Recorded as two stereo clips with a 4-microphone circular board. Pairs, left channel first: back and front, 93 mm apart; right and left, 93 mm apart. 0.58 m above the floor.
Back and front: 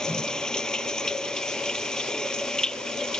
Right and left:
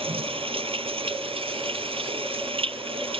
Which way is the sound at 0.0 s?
95° left.